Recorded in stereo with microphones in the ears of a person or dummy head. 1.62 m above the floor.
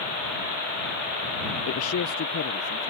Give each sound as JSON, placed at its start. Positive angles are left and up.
{"t": 1.7, "sound": "a man speaking", "side_deg": 80}